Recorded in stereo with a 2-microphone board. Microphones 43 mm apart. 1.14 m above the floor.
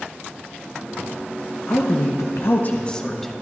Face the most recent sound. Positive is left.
turn(degrees=0)  # may be behind; listen again after turning